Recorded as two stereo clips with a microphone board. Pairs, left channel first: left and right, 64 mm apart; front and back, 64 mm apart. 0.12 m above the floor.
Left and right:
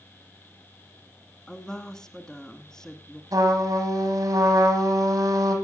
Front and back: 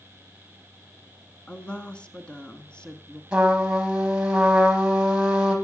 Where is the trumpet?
100° right, 2.5 m.